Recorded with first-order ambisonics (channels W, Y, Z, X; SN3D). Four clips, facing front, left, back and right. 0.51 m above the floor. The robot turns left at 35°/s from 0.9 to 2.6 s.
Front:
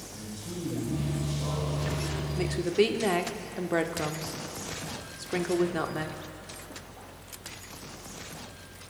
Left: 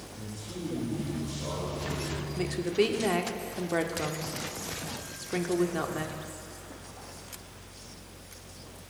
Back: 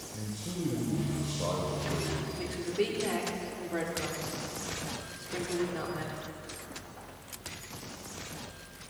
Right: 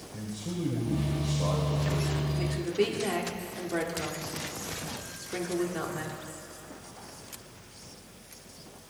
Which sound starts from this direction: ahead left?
A woman speaking, at 2.4 s.